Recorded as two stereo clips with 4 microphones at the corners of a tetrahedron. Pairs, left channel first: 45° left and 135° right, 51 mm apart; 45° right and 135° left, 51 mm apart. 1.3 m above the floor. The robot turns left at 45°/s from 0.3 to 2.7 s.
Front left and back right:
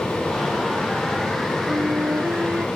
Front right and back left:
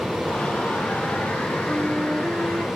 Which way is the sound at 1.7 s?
135° right.